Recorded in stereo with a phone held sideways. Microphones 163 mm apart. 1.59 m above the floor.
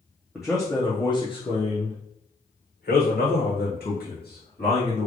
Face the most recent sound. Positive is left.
turn(degrees=80)